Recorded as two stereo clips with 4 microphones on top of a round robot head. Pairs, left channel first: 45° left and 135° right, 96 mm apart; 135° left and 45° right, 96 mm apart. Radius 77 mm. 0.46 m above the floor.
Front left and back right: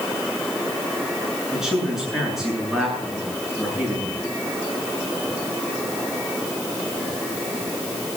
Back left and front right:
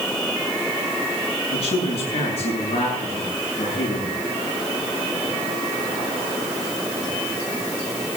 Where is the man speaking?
145° left, 8.5 m.